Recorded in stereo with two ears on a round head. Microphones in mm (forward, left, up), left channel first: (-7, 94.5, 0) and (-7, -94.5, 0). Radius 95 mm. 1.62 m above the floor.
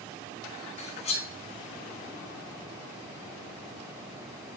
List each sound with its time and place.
0.8 s cutlery clinking: 30° left (ahead or behind), 0.9 m